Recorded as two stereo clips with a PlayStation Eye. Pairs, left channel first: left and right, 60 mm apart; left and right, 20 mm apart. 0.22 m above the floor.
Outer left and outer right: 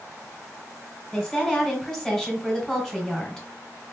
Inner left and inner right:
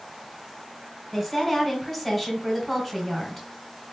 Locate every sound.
1.1 s a woman speaking: 10° left (ahead or behind), 2.0 m